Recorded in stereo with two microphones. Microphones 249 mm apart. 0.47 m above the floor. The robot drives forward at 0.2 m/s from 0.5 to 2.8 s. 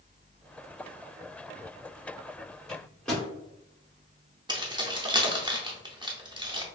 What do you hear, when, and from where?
2.7 s a microwave: 5° left (ahead or behind), 1.1 m
4.5 s keys jangling: 20° right (ahead or behind), 0.6 m